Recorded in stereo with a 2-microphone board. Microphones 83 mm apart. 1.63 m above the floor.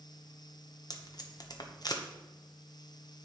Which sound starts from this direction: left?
Tape being pulled, at 0.9 s.